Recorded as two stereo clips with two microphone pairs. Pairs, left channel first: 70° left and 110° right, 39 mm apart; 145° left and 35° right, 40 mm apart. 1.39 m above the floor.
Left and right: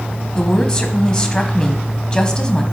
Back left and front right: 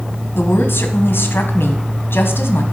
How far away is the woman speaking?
About 1.3 m.